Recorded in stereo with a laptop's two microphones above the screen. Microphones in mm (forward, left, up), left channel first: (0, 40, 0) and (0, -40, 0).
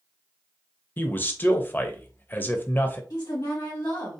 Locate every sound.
1.0 s a man speaking: 25° left (ahead or behind), 0.6 m
3.1 s a woman speaking: 60° left (ahead or behind), 1.5 m